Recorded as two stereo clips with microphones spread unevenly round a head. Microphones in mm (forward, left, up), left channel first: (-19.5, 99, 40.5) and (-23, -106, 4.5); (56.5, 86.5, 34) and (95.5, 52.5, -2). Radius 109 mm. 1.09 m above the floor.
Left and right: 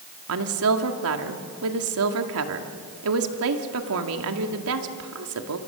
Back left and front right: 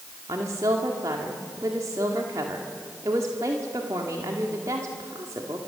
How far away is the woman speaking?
About 1.9 m.